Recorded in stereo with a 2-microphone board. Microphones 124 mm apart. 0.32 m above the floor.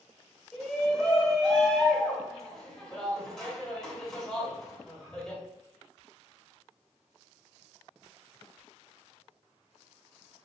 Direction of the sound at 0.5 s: 5° left (ahead or behind).